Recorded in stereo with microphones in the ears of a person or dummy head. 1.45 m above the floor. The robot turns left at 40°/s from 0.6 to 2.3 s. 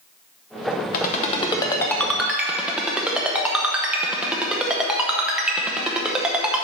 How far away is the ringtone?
About 0.7 m.